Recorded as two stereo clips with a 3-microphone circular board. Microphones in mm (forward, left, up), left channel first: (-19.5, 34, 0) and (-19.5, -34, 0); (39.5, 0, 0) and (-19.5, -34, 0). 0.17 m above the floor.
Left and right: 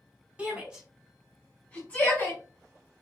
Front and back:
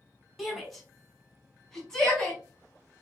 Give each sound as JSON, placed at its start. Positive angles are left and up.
{"t": 0.4, "sound": "a shout", "azimuth_deg": -55, "distance_m": 1.2}